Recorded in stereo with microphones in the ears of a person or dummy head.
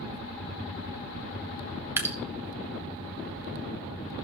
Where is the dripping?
15° right (ahead or behind), 1.0 m.